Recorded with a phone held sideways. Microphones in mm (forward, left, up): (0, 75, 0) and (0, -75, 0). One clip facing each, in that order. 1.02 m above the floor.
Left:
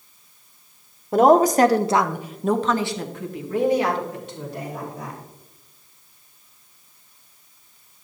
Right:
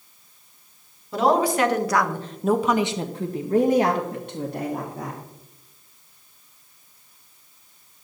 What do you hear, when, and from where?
1.1 s a woman speaking: 50° left (ahead or behind), 1.0 m; by 5.2 s 65° right (ahead or behind), 1.9 m